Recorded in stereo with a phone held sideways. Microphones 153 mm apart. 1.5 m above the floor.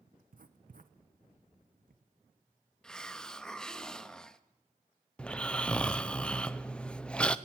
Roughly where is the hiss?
Centre.